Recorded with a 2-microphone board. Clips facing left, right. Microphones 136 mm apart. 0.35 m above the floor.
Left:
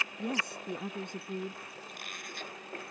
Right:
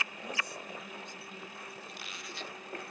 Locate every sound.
0.2 s a woman speaking: 65° left (ahead or behind); by 1.8 s 60° left (ahead or behind)
1.9 s a squeak: 50° left (ahead or behind)